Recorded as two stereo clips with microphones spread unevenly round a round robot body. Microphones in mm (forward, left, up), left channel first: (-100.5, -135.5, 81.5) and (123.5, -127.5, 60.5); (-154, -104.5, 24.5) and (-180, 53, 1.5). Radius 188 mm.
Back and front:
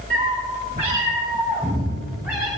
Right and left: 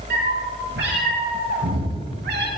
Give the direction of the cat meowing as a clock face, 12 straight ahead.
10 o'clock.